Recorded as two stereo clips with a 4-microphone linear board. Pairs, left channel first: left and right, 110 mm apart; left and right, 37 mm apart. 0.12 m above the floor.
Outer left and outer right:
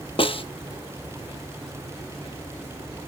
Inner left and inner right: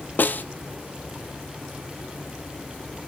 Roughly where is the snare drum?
Left.